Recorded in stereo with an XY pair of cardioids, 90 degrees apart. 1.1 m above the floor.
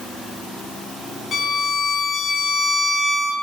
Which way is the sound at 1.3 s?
60° left.